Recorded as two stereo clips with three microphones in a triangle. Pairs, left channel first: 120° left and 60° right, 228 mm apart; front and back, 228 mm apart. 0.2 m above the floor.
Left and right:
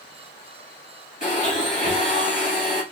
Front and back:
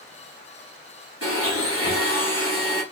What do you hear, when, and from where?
1.2 s a blender: 175° left, 2.5 m